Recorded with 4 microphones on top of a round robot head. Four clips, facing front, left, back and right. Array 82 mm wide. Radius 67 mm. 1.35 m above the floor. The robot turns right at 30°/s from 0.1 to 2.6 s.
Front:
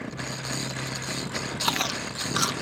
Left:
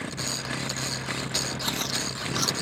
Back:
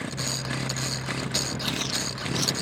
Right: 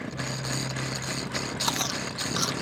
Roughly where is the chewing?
Ahead.